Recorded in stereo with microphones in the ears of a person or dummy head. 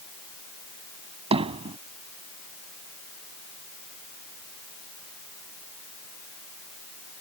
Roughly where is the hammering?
Right.